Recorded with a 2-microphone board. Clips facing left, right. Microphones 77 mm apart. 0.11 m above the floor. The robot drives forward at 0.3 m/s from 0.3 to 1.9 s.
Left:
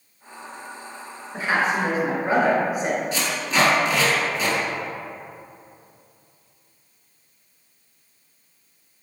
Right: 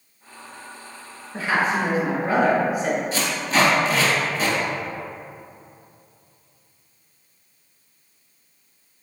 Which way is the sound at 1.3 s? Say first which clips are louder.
Even; 20° left (ahead or behind).